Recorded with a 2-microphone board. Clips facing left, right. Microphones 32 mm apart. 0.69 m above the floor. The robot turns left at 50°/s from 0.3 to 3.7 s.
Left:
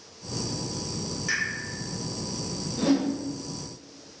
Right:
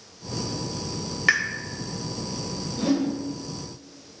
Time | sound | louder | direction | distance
1.3 | a pop | right 8 dB | 70° right (ahead or behind) | 0.7 m
2.8 | a whoosh | even | 20° left (ahead or behind) | 0.8 m